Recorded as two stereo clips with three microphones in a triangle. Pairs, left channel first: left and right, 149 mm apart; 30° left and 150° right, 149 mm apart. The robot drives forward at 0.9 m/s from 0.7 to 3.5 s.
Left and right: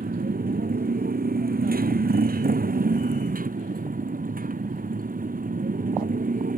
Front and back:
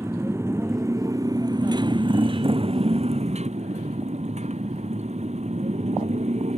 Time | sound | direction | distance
0.0 | a motorcycle | 80° right | ?